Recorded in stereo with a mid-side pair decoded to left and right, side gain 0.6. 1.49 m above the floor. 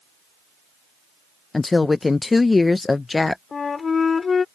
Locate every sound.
1.5 s a woman speaking: 20° left
3.5 s a flute: 30° left